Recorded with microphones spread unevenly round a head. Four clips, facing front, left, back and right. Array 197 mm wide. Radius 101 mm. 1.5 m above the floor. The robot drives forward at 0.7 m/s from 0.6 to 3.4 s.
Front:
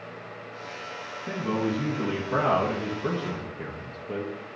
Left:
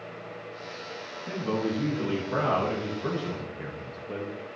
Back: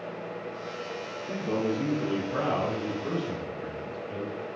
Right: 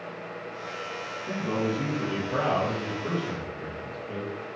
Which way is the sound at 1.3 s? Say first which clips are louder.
Even, front 1 dB; 10° left.